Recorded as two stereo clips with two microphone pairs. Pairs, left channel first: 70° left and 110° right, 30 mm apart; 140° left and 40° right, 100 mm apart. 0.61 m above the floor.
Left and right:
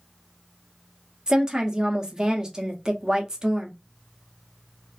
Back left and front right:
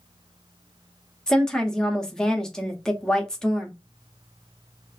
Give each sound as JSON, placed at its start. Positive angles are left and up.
{"t": 1.3, "sound": "a woman speaking", "azimuth_deg": -150, "distance_m": 0.7}